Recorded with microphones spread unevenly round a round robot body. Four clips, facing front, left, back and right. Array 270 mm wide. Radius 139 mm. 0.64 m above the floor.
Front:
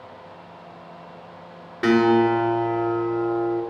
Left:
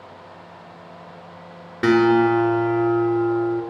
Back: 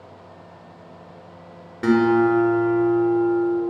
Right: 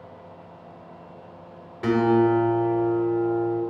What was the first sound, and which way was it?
A guitar, 75° left.